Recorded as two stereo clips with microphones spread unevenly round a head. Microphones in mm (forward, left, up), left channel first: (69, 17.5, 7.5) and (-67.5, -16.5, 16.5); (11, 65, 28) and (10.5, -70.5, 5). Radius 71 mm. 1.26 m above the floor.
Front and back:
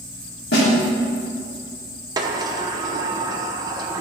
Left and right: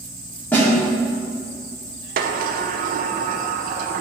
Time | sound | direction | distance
0.5 | a snare drum | 10° left | 3.5 m
2.2 | a sliding door | 100° right | 0.7 m